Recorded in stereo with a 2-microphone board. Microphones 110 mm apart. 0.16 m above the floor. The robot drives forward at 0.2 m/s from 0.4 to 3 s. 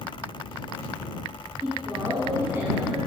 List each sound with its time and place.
1.6 s a woman speaking: 25° right (ahead or behind), 1.7 m